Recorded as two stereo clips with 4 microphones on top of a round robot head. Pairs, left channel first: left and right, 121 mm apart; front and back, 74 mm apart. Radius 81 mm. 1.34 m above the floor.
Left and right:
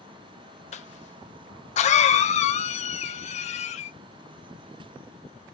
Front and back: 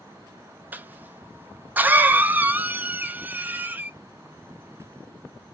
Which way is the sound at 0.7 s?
110° left.